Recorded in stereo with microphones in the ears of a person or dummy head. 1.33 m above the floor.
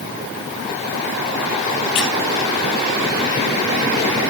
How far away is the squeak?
About 2.5 m.